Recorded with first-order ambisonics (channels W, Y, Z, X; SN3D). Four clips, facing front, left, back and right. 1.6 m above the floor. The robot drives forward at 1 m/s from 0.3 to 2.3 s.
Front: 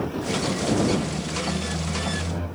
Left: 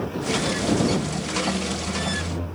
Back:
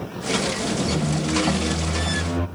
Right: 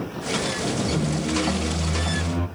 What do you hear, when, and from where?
0.9 s a squeak: 130° right, 1.4 m; by 2.5 s 155° right, 2.5 m